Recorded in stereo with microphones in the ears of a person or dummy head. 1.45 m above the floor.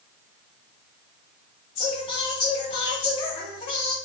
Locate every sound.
1.8 s singing: 30° left (ahead or behind), 1.8 m